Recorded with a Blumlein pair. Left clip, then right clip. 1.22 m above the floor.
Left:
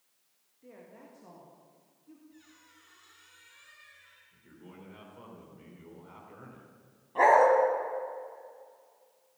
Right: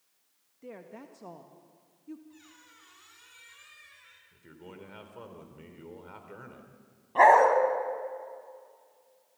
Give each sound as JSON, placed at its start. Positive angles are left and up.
{"t": 0.6, "sound": "a woman speaking", "azimuth_deg": -65, "distance_m": 1.7}
{"t": 2.3, "sound": "a squeak", "azimuth_deg": -30, "distance_m": 7.0}
{"t": 4.3, "sound": "a man speaking", "azimuth_deg": -25, "distance_m": 3.5}
{"t": 7.2, "sound": "a dog barking", "azimuth_deg": -15, "distance_m": 4.0}